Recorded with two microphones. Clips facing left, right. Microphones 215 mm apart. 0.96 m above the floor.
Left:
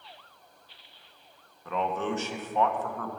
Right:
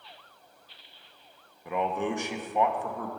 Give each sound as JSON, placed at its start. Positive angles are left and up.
{"t": 1.6, "sound": "a man speaking", "side_deg": -15, "distance_m": 0.8}